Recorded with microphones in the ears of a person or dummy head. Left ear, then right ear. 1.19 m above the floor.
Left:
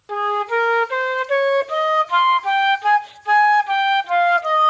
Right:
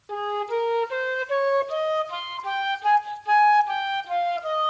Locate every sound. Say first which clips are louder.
0.1 s a flute: left 7 dB; 30° left (ahead or behind), 0.8 m